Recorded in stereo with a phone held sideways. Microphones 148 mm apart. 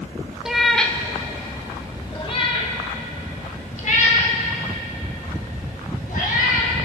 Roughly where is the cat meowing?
Centre.